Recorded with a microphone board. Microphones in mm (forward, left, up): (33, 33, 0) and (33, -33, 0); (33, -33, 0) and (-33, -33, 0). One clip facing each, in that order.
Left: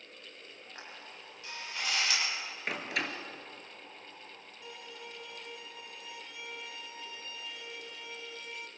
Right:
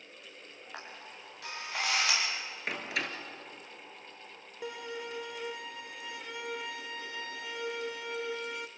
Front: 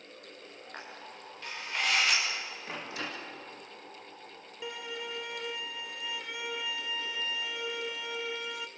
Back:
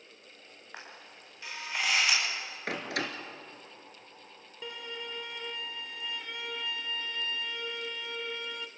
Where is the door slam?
Straight behind, 2 m.